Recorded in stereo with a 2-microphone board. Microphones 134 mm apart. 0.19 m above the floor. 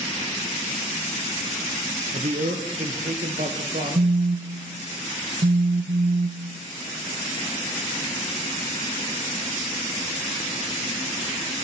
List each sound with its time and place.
2.1 s a man speaking: 65° right (ahead or behind), 3 m; by 4.3 s 75° right (ahead or behind), 4.5 m
4.0 s a phone buzzing: 60° right (ahead or behind), 1.0 m